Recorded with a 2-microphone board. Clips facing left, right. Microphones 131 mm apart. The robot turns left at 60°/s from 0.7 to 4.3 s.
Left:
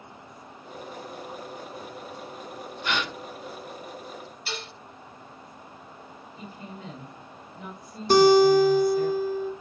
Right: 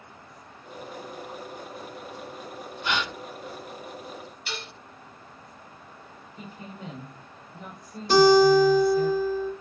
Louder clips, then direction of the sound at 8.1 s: Even; 60° left (ahead or behind).